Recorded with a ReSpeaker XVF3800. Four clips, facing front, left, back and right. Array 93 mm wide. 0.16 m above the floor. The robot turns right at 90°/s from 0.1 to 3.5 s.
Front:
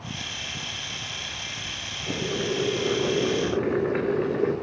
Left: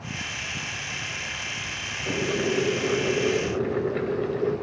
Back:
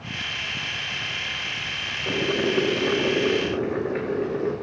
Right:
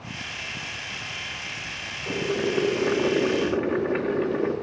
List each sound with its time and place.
2.1 s boiling: straight behind, 4 m; by 4.5 s 50° right, 4 m